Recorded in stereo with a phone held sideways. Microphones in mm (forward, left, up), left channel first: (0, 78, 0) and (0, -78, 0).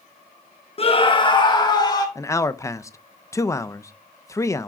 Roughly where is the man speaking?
Centre.